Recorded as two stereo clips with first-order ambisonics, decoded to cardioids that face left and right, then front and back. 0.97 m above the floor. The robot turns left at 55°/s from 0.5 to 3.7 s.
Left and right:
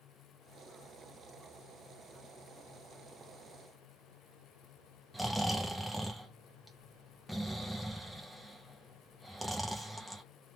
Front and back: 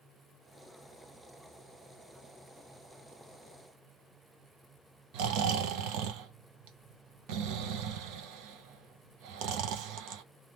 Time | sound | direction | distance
5.1 | snoring | straight behind | 0.7 m